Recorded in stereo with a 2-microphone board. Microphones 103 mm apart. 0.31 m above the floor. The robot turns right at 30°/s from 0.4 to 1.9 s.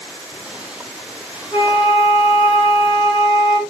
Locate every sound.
1.5 s a flute: 50° left (ahead or behind), 2.0 m; by 3.6 s 60° left (ahead or behind), 2.0 m